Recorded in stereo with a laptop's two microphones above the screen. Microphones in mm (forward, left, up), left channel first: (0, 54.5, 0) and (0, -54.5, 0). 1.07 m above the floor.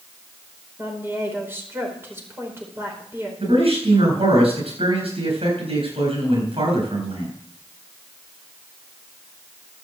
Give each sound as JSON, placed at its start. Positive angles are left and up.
{"t": 0.8, "sound": "a woman speaking", "side_deg": -20, "distance_m": 4.5}
{"t": 3.4, "sound": "a man speaking", "side_deg": -65, "distance_m": 7.0}